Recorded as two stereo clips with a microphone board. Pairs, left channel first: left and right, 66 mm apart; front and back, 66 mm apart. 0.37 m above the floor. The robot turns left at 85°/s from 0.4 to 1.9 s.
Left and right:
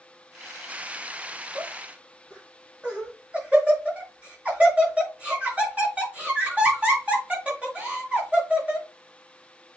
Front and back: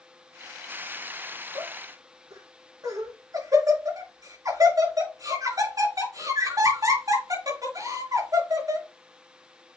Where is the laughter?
130° right, 5.5 m; by 8.9 s 160° right, 5.5 m.